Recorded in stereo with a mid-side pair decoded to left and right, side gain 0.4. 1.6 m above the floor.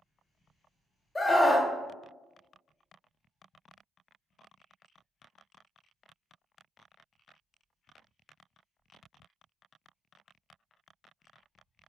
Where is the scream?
20° left, 0.6 m.